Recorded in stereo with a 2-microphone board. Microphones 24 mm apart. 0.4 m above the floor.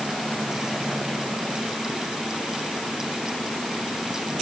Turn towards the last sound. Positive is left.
No sound to turn to.